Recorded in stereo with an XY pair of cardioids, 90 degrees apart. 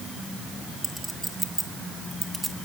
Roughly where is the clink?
Ahead right.